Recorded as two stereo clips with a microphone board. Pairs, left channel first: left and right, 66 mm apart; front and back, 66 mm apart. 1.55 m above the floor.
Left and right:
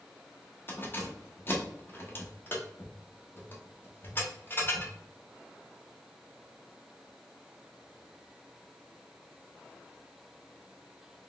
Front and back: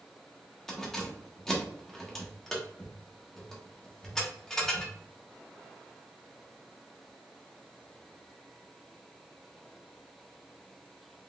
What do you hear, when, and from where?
0.7 s keys jangling: 80° left, 0.9 m